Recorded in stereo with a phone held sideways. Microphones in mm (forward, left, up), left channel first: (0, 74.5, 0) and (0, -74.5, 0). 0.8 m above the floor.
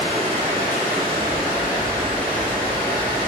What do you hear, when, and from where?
0.0 s running water: 40° right (ahead or behind), 1.5 m